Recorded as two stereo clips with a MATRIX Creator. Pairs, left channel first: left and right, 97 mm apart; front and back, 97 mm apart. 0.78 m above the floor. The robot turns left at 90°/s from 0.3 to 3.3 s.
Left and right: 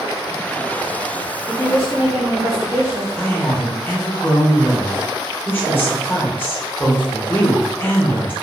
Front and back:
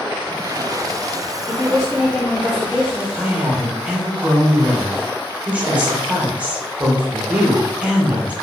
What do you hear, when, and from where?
1.5 s a woman speaking: 120° left, 1.1 m; by 3.1 s 25° right, 1.1 m
3.2 s a woman speaking: 135° left, 0.8 m; by 8.3 s 125° left, 0.8 m